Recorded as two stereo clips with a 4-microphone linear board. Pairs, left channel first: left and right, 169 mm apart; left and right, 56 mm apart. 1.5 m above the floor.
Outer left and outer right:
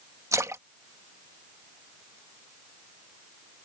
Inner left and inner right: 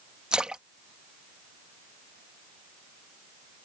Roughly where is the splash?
Centre.